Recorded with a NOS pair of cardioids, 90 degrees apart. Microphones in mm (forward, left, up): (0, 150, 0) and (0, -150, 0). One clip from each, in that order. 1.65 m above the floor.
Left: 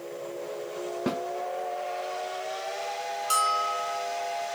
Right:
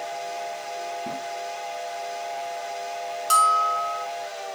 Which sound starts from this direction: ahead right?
A bell, at 3.3 s.